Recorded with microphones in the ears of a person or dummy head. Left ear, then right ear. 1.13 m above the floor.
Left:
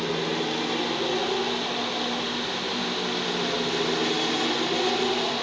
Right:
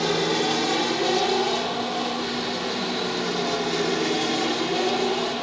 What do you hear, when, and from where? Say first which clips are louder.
0.0 s an aircraft: right 4 dB; 35° right (ahead or behind); by 5.4 s 5° right (ahead or behind)